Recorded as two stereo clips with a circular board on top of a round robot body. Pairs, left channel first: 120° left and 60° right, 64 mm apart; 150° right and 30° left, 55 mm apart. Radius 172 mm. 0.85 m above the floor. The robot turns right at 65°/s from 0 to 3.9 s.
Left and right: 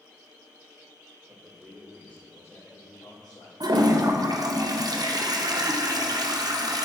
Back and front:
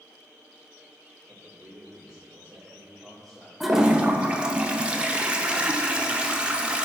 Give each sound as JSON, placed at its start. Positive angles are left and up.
{"t": 1.3, "sound": "a man speaking", "azimuth_deg": -5, "distance_m": 2.5}
{"t": 3.6, "sound": "a toilet flushing", "azimuth_deg": -60, "distance_m": 0.7}